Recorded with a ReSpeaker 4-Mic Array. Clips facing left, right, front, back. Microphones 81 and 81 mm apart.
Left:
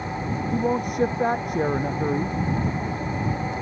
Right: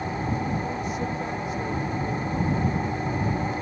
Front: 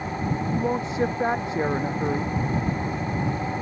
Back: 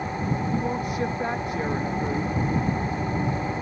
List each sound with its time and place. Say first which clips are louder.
0.5 s a man speaking: left 5 dB, front 1 dB; 65° left